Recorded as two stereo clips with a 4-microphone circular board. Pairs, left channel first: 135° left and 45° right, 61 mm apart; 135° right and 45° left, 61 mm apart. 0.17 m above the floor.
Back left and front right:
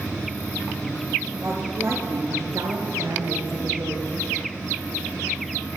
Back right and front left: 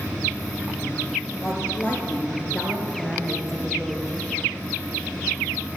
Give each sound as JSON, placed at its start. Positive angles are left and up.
{"t": 1.4, "sound": "a woman speaking", "azimuth_deg": -90, "distance_m": 2.5}